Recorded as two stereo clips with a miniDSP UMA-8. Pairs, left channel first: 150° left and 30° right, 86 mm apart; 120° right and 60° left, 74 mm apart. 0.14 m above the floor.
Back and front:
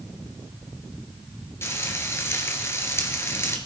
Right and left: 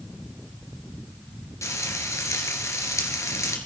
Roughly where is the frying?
Behind.